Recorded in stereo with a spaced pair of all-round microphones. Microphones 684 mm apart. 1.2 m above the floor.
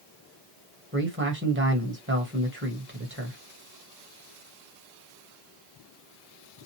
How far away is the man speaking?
About 1.2 m.